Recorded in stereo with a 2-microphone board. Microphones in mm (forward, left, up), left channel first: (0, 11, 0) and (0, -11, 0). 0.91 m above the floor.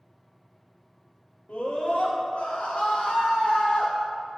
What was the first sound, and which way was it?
A scream, 65° left (ahead or behind).